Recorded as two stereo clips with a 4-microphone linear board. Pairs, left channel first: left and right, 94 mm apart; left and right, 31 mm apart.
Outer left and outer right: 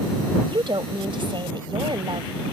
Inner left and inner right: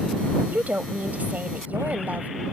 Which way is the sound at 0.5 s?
60° right (ahead or behind).